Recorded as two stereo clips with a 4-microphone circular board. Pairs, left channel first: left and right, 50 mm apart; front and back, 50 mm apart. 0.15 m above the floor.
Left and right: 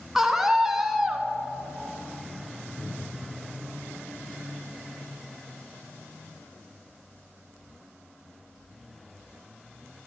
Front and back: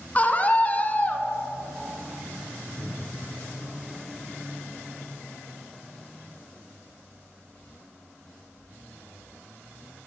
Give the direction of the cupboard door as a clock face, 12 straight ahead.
6 o'clock.